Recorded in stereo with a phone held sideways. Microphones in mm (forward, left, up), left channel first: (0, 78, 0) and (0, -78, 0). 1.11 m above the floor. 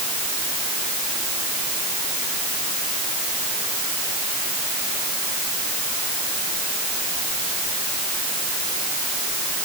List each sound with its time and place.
Only background noise.